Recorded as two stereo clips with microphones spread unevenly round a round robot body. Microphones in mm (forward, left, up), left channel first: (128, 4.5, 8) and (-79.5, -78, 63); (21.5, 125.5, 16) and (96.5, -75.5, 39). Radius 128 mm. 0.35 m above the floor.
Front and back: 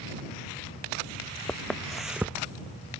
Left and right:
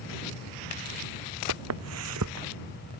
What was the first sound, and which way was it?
Footsteps, 65° right.